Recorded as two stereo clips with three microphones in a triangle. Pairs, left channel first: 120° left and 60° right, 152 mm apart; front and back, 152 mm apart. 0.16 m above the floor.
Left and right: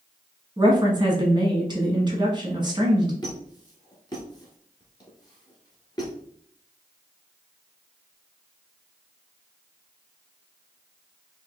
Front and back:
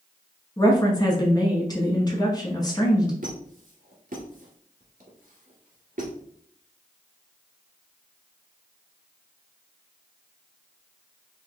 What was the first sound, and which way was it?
A woman speaking, 35° right.